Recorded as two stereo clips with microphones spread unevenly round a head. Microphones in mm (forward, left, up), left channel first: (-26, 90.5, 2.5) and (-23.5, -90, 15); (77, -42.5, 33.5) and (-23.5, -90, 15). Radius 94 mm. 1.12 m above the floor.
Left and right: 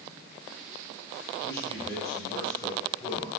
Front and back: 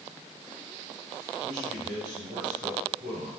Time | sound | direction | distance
1.4 | a man speaking | 160° left | 4 m